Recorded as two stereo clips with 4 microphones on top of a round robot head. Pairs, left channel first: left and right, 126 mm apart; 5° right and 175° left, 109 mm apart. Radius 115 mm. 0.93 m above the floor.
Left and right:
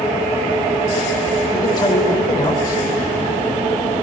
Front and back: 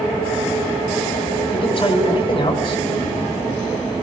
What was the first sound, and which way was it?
A man speaking, 30° left.